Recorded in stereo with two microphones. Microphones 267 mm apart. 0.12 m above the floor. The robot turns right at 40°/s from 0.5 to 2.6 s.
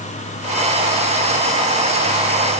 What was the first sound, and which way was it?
Only background noise.